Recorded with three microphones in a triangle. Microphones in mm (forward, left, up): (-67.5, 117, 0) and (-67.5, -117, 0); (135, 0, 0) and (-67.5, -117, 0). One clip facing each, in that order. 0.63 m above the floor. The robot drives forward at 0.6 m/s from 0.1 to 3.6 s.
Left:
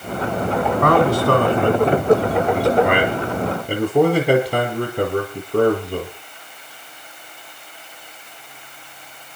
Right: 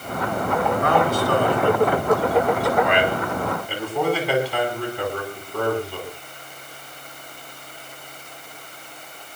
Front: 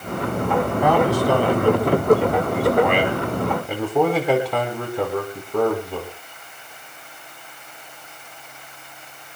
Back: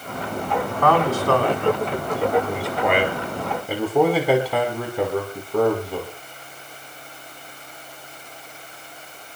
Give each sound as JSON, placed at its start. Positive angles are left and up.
{"t": 0.8, "sound": "a man speaking", "azimuth_deg": 110, "distance_m": 4.5}